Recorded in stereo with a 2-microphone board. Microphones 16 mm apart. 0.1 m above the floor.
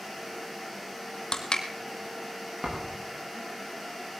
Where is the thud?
35° right (ahead or behind), 5 m.